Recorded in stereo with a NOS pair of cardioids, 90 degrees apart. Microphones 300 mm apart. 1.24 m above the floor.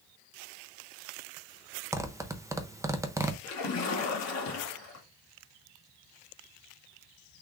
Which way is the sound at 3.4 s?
65° left.